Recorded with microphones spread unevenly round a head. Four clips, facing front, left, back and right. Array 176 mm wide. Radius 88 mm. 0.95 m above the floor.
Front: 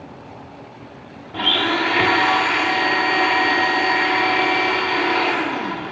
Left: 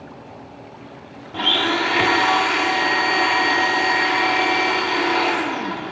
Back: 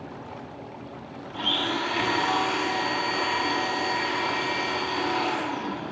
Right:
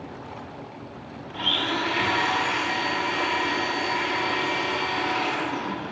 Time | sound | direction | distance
1.3 | a blender | 45° left | 1.2 m